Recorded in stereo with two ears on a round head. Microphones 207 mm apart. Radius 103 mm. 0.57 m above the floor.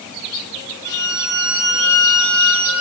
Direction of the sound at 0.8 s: 55° right (ahead or behind).